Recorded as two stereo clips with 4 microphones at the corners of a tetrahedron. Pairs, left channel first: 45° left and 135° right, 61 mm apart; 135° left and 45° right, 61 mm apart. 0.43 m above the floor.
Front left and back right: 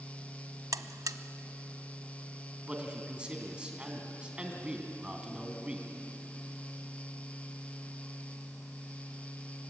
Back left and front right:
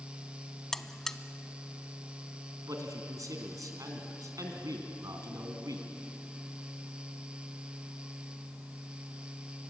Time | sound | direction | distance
0.7 | a buzzer | 145° right | 0.7 m
2.7 | a man speaking | 60° right | 3 m